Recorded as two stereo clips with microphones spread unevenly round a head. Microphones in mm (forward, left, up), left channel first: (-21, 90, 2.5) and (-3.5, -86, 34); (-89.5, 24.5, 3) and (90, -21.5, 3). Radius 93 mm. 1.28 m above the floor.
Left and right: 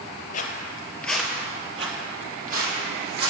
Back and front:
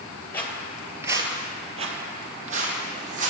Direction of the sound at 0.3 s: 95° left.